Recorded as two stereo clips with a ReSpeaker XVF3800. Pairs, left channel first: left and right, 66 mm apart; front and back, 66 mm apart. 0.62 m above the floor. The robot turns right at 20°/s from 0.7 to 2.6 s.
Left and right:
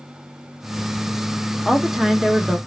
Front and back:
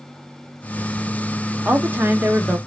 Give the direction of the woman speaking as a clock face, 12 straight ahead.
6 o'clock.